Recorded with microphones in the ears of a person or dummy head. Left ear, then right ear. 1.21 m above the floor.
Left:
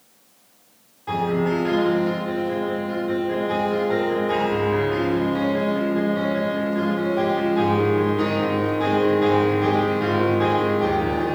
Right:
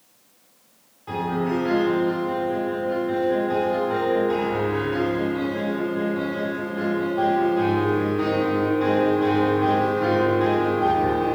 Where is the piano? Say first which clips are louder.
Left 3 dB; 20° left (ahead or behind), 3.5 m.